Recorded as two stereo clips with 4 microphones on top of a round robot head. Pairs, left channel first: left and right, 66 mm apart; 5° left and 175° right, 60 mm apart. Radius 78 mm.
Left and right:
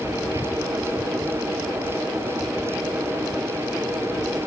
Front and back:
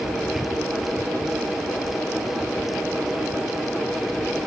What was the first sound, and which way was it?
Only background noise.